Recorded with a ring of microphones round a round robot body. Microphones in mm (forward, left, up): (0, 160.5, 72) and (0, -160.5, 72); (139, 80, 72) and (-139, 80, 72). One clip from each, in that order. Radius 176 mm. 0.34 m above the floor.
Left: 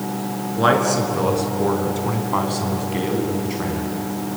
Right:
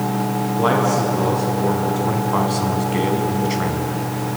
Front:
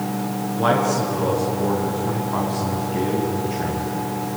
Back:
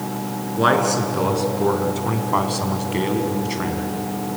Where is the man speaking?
145° left, 5 m; by 3.9 s 145° right, 3.5 m.